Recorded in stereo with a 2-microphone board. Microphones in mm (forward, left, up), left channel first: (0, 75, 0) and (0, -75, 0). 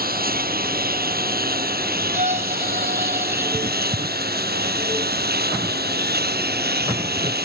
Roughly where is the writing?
Right.